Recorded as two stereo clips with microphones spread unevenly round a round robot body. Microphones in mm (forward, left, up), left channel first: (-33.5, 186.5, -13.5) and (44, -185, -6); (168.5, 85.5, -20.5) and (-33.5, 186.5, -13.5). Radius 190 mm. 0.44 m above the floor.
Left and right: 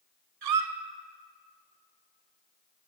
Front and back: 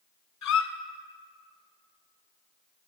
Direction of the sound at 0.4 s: 40° right.